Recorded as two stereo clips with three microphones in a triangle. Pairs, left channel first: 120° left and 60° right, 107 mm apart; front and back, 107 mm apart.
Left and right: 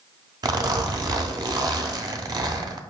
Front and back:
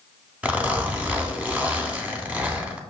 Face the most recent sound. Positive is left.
turn(degrees=-105)